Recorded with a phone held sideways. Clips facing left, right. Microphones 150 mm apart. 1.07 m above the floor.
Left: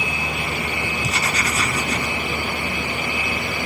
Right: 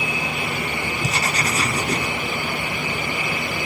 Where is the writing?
35° right (ahead or behind), 1.1 m.